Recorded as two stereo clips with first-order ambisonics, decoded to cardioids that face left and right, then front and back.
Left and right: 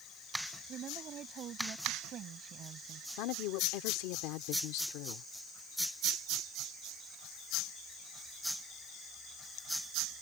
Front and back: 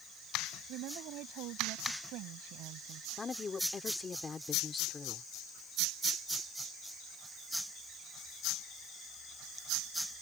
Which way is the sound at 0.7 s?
145° right.